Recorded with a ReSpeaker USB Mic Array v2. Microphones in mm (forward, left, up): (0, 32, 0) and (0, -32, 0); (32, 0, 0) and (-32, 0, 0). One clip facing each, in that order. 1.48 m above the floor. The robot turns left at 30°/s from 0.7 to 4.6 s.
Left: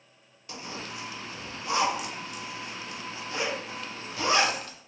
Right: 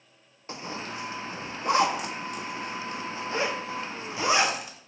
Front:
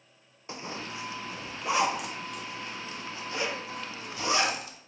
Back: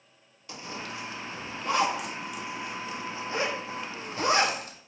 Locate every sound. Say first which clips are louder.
0.5 s a zipper: right 3 dB, even; 50° right, 0.5 m; by 4.8 s 165° right, 0.5 m